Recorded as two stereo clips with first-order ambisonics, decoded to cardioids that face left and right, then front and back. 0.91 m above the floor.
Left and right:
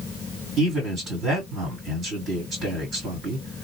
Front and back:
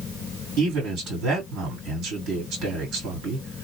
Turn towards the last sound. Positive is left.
turn(degrees=-145)